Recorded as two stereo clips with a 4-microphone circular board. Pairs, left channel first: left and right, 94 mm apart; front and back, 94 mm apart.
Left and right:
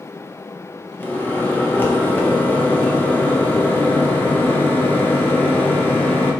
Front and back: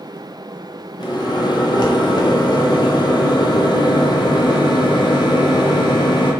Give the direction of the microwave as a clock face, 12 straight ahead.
11 o'clock.